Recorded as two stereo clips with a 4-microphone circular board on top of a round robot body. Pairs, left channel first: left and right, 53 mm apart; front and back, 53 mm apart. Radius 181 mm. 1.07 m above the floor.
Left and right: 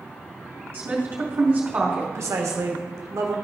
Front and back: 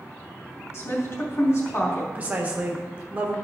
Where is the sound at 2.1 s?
115° right, 1.5 m.